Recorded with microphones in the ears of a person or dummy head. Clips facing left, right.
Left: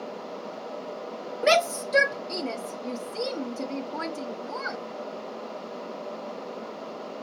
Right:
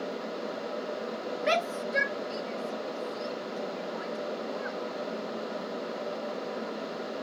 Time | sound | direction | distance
1.4 | a shout | 50° left (ahead or behind) | ?